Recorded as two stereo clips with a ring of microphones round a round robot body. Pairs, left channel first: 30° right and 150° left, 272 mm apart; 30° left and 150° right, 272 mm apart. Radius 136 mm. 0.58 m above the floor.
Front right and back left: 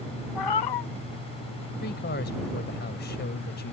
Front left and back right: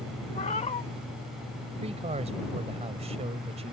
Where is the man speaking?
85° right.